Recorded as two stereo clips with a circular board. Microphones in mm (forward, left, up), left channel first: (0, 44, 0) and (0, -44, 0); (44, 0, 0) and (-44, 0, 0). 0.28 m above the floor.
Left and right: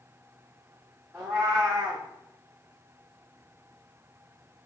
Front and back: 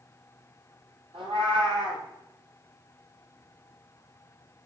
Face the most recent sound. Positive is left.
turn(degrees=-175)